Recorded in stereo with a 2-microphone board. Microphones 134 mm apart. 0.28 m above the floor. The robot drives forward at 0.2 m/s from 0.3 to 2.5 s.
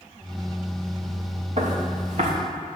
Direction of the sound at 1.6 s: 55° right (ahead or behind).